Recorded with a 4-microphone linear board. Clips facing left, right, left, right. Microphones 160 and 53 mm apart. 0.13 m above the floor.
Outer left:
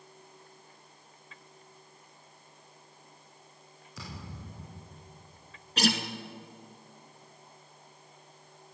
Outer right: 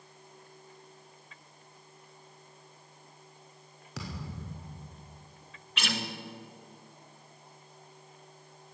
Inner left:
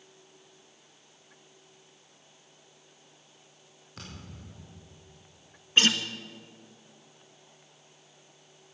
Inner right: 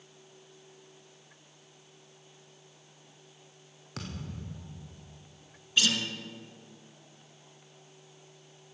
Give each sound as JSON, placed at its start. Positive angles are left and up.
{"t": 4.0, "sound": "a thud", "side_deg": -75, "distance_m": 3.0}
{"t": 5.8, "sound": "a guitar", "side_deg": 40, "distance_m": 1.4}